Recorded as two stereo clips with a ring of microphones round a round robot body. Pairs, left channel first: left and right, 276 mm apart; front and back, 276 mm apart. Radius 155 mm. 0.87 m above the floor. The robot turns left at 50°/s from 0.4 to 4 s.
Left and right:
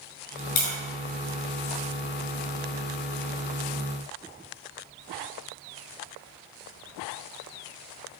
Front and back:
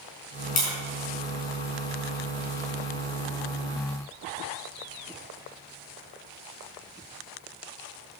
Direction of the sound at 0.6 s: 65° left.